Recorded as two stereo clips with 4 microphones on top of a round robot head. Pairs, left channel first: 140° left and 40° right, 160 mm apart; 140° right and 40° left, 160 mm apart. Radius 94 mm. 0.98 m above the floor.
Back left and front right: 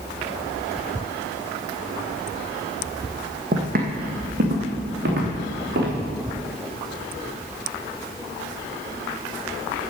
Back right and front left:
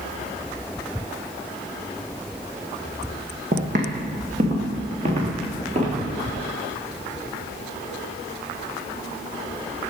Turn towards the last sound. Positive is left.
turn(degrees=-10)